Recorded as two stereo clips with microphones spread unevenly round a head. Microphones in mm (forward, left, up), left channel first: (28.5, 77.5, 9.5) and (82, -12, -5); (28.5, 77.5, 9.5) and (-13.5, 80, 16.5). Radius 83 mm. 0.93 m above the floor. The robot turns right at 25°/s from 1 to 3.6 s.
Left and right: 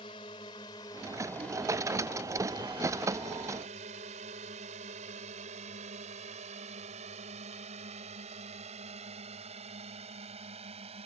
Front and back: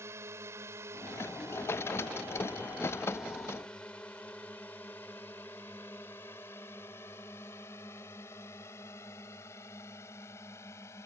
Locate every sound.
0.0 s a drone: straight behind; by 11.1 s 40° right